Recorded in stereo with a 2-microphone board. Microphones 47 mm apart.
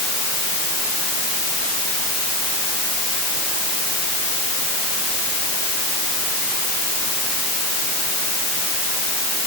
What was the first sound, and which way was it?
Only background noise.